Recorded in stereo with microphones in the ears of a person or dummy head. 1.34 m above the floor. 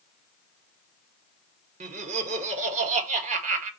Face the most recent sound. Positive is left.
turn(degrees=-40)  # may be behind; listen again after turning